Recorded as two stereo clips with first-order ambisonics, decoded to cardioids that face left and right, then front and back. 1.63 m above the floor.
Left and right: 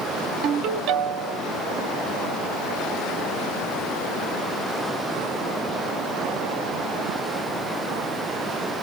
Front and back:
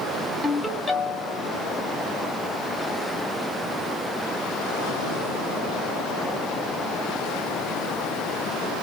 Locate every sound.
0.4 s a ringtone: 80° right, 1.6 m